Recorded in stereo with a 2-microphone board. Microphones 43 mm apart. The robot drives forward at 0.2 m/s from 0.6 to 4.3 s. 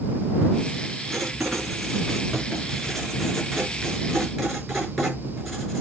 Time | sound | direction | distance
1.1 | writing | centre (ahead or behind) | 5 m